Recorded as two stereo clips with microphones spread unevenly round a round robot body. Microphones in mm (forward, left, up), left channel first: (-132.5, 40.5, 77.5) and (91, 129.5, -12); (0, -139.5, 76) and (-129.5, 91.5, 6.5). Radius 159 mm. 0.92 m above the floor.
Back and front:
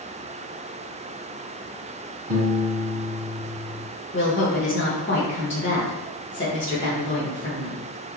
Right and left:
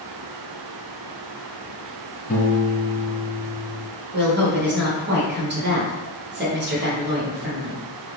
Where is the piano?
5° right, 1.2 m.